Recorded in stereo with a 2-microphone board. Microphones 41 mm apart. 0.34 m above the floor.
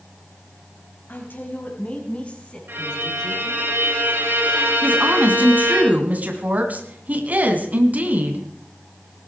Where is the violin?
60° right (ahead or behind), 4.5 m.